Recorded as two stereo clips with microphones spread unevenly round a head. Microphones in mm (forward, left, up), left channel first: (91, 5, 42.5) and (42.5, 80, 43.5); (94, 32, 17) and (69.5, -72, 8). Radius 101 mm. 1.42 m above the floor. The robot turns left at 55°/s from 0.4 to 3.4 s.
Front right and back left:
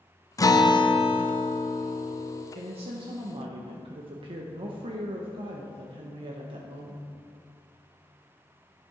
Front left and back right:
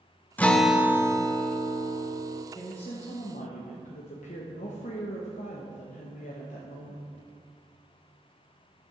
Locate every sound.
0.4 s a guitar: straight ahead, 0.9 m; by 2.5 s 115° right, 0.9 m
2.5 s a woman speaking: 145° left, 1.0 m; by 7.1 s 100° left, 1.0 m